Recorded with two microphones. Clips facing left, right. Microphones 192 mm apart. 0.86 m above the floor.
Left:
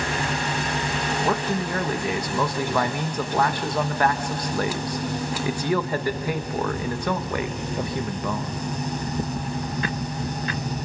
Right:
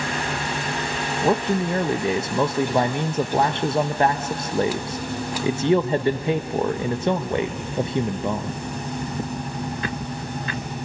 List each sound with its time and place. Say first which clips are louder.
1.2 s a man speaking: right 6 dB; 25° right (ahead or behind), 0.6 m